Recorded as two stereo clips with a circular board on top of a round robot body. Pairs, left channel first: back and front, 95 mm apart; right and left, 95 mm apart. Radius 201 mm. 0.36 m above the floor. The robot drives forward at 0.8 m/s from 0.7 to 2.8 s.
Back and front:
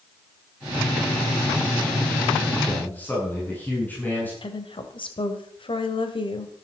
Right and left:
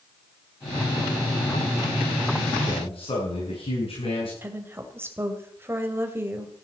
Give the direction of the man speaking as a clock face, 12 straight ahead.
4 o'clock.